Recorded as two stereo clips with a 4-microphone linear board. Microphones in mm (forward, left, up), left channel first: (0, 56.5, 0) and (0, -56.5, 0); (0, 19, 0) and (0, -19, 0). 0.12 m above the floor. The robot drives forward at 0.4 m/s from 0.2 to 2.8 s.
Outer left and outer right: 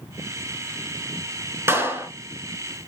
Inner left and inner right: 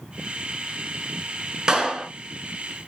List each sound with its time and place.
1.7 s a clap: 20° right (ahead or behind), 0.8 m